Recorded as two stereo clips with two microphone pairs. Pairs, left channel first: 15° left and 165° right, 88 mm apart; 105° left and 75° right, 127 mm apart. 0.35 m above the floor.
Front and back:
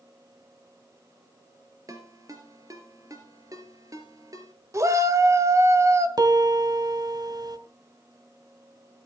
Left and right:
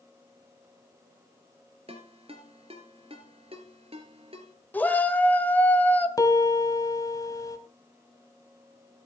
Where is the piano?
160° left, 1.7 m.